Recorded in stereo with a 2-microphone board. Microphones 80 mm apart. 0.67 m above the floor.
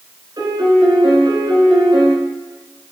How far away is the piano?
About 1.6 m.